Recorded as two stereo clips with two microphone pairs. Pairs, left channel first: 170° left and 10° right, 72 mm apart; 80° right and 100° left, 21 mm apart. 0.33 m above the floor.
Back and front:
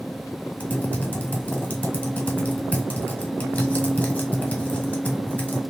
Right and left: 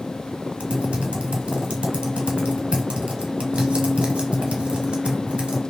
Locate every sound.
0.6 s typing on a keyboard: 105° left, 0.7 m